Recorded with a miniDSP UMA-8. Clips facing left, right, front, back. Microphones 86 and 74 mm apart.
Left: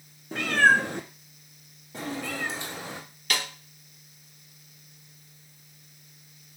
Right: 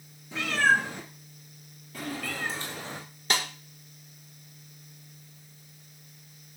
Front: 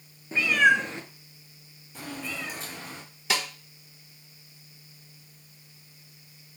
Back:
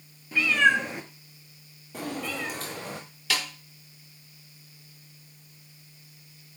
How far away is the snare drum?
About 0.6 m.